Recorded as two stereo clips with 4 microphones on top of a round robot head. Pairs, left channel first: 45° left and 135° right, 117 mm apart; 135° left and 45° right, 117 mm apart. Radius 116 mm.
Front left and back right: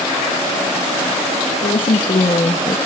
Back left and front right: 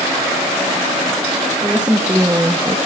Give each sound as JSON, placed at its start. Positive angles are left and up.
{"t": 1.6, "sound": "a woman speaking", "azimuth_deg": 35, "distance_m": 1.5}